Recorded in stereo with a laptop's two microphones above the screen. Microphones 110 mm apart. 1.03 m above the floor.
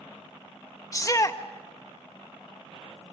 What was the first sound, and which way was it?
A shout, 30° left (ahead or behind).